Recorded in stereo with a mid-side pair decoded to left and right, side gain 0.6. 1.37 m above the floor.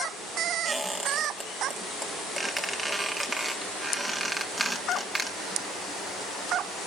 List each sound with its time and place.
0.7 s a squeak: 5° right, 1.8 m